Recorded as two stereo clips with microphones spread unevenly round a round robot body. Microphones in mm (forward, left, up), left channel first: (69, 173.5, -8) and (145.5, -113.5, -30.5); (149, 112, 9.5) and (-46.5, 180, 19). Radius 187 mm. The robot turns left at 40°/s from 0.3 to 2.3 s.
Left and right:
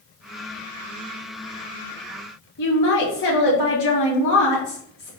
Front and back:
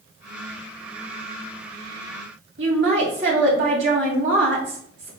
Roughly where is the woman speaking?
Behind left.